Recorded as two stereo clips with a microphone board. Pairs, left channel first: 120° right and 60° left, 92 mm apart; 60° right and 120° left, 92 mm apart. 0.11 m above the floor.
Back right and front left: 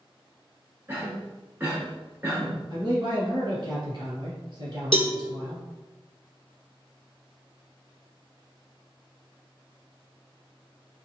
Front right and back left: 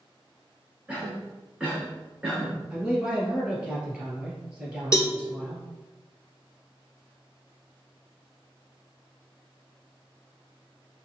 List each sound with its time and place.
0.9 s a cough: 55° left, 1.1 m
2.7 s a man speaking: 45° left, 1.7 m
4.9 s a cowbell: 115° right, 0.7 m